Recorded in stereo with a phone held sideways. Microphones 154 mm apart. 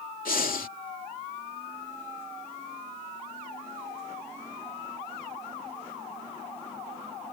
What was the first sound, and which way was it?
Breathing, 70° left (ahead or behind).